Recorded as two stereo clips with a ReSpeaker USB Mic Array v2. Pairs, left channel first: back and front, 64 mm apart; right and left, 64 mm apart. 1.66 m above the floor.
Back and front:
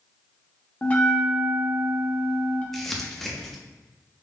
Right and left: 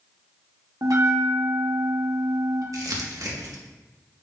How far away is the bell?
About 1.2 m.